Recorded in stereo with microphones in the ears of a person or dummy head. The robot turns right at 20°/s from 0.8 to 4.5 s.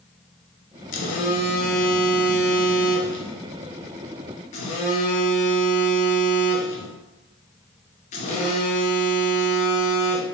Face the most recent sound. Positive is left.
turn(degrees=130)